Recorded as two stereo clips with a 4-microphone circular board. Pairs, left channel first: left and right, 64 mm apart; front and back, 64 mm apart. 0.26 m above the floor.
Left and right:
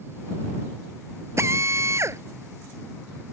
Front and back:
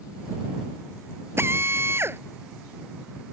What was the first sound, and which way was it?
A drill, 130° right.